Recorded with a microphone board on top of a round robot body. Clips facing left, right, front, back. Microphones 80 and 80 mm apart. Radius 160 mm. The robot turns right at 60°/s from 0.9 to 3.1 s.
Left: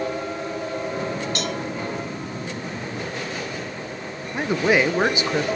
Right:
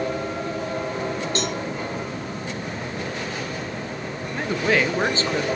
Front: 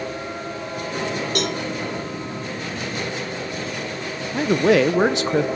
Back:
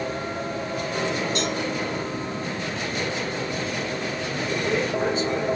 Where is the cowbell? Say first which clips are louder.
Right 1 dB, front 2 dB; 30° right, 1.5 m; by 1.6 s 15° right, 1.5 m.